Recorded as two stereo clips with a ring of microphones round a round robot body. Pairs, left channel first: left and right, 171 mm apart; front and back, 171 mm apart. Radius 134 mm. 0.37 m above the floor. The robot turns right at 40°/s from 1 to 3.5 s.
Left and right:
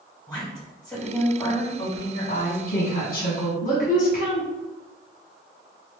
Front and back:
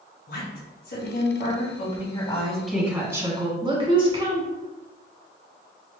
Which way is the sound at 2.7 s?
90° left.